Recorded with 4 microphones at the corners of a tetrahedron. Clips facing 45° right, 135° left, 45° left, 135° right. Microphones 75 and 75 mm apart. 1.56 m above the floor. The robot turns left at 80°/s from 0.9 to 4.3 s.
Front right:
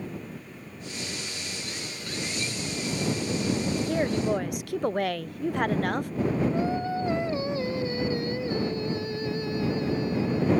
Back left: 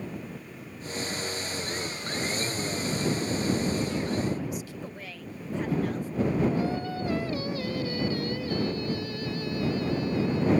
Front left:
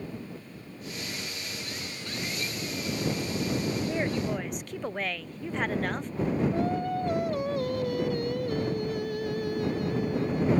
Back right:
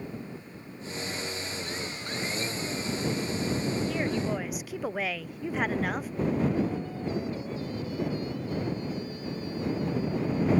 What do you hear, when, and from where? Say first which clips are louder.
3.9 s a woman speaking: front right 4 dB, even; 20° right; by 6.1 s 50° right
6.5 s singing: front right 2 dB, front left 2 dB; 20° left